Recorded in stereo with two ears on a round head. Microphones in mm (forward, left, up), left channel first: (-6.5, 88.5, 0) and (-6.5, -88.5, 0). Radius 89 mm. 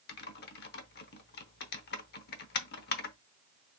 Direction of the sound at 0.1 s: 55° left (ahead or behind).